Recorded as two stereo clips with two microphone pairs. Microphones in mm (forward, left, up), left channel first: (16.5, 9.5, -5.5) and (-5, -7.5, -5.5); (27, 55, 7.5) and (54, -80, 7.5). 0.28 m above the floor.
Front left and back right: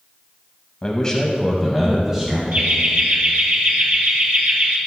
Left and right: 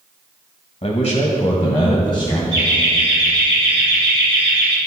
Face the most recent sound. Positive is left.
turn(degrees=-135)